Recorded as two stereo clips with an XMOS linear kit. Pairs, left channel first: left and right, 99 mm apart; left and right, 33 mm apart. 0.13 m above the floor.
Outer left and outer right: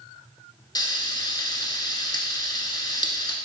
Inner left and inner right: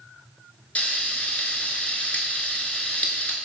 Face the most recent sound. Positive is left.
turn(degrees=45)  # may be behind; listen again after turning